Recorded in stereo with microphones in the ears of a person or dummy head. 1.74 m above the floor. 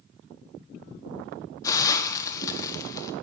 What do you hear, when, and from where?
1.6 s a hiss: 25° left (ahead or behind), 1.4 m